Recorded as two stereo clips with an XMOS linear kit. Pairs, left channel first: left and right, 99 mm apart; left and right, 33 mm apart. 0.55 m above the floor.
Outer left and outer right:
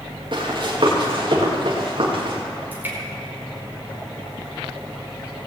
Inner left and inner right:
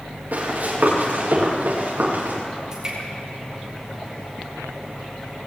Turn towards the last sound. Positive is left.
turn(degrees=-20)  # may be behind; listen again after turning